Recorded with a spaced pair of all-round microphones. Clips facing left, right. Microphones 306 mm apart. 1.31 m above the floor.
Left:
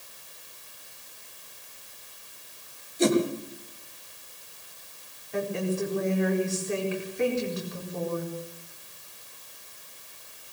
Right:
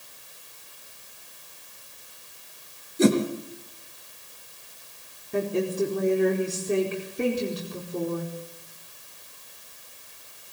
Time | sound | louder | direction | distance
3.0 | a whoosh | right 2 dB | 70° right (ahead or behind) | 3.5 m
5.3 | a woman speaking | right 4 dB | 45° right (ahead or behind) | 4.5 m